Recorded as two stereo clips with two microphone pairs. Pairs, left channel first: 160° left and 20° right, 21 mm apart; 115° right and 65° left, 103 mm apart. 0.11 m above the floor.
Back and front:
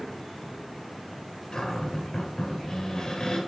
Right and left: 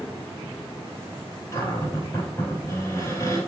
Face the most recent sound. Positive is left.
turn(degrees=-165)